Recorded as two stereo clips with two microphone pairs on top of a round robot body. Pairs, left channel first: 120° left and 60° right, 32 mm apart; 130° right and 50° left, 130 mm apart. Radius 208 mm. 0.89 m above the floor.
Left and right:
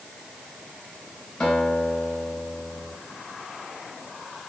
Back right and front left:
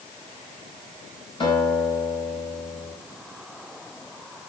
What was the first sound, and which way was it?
A guitar, 175° left.